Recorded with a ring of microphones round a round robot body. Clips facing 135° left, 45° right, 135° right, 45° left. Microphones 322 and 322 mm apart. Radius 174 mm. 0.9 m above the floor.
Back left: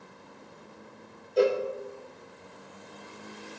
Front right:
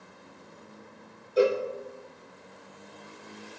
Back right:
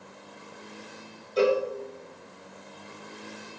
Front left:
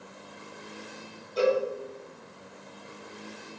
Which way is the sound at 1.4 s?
125° right.